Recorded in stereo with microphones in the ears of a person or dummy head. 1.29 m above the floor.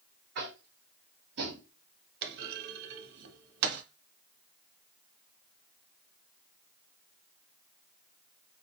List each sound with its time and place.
0.3 s tapping: 60° right (ahead or behind), 0.8 m
2.2 s a clunk: 60° right (ahead or behind), 0.5 m